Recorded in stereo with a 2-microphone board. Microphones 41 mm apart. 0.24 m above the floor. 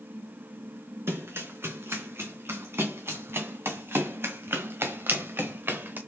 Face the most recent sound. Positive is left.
turn(degrees=-60)  # may be behind; listen again after turning